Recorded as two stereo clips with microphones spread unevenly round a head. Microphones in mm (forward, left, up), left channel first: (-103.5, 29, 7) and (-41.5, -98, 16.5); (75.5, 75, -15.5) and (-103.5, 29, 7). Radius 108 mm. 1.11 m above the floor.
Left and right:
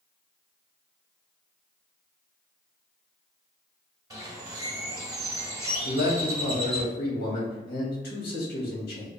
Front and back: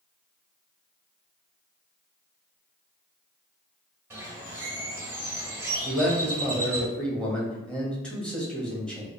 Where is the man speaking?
100° left, 1.4 m.